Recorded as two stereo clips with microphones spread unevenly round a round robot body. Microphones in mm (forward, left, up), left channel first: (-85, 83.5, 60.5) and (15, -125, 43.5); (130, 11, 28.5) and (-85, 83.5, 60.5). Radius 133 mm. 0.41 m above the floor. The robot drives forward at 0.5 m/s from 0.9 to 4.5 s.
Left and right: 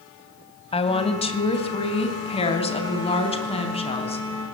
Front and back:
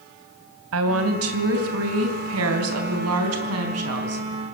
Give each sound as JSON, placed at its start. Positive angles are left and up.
{"t": 0.7, "sound": "a woman speaking", "azimuth_deg": 180, "distance_m": 3.0}